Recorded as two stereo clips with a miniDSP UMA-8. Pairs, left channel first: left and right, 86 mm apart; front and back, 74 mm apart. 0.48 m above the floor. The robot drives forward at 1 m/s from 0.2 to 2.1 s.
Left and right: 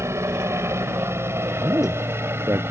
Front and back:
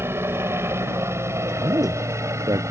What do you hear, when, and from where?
0.0 s a helicopter: 135° right; by 2.7 s 145° right
1.6 s a man speaking: 150° right